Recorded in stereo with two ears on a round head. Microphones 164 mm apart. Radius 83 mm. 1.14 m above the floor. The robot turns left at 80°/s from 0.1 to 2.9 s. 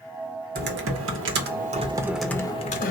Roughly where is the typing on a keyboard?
Ahead right.